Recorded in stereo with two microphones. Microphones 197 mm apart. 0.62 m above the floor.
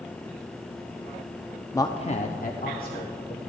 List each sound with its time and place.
1.7 s a man speaking: 15° left (ahead or behind), 0.5 m; by 3.4 s 55° left (ahead or behind), 1.7 m